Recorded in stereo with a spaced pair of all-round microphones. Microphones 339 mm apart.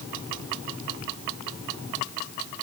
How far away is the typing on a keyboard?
No typing on a keyboard in this recording.